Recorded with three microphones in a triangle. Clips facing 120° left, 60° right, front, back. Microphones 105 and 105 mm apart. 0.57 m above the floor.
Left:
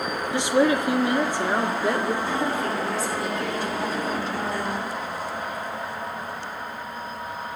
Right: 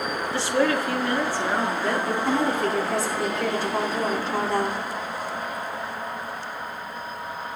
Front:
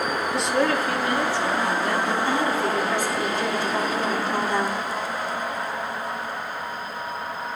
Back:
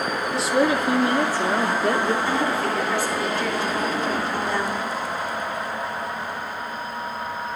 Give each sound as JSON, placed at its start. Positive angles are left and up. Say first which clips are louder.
{"t": 0.3, "sound": "a woman speaking", "louder": "left 3 dB, back 3 dB", "azimuth_deg": 85, "distance_m": 0.9}
{"t": 2.2, "sound": "a woman speaking", "louder": "right 2 dB, even", "azimuth_deg": -70, "distance_m": 4.5}